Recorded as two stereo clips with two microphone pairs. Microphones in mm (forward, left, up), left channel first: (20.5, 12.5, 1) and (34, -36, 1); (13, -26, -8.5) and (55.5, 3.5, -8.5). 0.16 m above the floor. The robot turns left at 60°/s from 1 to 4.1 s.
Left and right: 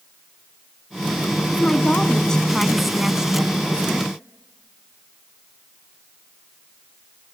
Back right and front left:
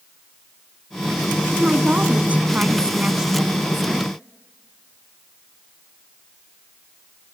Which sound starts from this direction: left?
A woman speaking, at 1.5 s.